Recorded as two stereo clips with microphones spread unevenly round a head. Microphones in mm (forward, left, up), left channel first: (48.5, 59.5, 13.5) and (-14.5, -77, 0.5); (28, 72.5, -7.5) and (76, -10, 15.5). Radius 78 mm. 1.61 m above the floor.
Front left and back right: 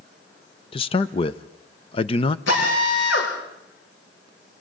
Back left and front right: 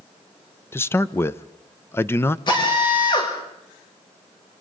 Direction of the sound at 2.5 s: 80° left.